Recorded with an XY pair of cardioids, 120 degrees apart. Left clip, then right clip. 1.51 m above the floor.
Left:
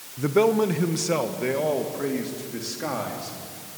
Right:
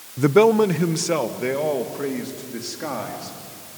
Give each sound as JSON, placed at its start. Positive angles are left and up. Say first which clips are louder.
{"t": 0.2, "sound": "a man speaking", "louder": "right 5 dB", "azimuth_deg": -50, "distance_m": 0.6}